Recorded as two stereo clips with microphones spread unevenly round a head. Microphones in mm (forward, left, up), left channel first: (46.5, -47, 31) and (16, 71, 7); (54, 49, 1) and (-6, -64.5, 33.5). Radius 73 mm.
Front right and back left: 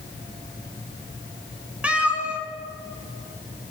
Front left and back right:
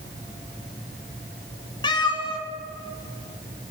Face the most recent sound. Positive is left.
turn(degrees=10)